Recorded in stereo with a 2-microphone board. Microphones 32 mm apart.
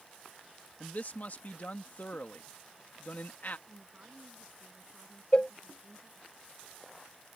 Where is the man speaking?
50° left (ahead or behind).